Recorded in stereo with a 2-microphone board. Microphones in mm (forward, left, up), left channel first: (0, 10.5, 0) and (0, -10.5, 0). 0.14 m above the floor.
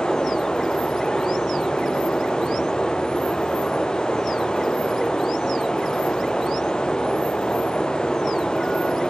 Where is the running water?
45° left (ahead or behind), 1.0 m.